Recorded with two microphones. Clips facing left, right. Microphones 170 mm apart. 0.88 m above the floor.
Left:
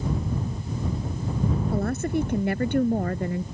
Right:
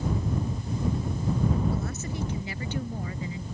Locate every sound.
1.7 s a woman speaking: 60° left (ahead or behind)